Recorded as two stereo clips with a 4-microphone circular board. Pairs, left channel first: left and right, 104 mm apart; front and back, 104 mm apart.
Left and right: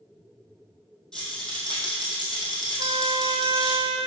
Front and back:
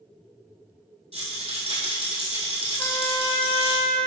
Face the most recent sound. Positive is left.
turn(degrees=-65)